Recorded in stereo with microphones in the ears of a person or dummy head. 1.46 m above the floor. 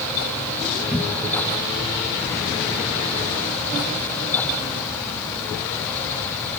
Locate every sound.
0.9 s a cupboard door: 10° right (ahead or behind), 1.0 m